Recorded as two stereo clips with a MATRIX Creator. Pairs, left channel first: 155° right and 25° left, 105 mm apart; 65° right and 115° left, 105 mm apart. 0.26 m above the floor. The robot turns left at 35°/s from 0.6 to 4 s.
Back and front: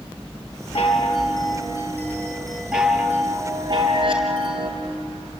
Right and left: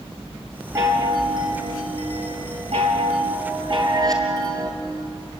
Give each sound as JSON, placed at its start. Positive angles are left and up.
{"t": 0.8, "sound": "a chime", "azimuth_deg": 175, "distance_m": 3.5}